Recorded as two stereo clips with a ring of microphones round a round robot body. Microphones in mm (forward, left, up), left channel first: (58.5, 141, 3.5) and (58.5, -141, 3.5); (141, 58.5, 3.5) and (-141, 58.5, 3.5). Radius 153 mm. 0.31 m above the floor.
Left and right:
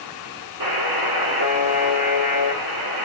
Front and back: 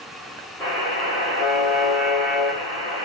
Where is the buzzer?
80° right, 3.5 m.